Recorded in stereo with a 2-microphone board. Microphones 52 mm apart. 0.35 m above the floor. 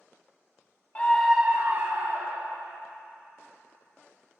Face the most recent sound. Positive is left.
turn(degrees=-65)  # may be behind; listen again after turning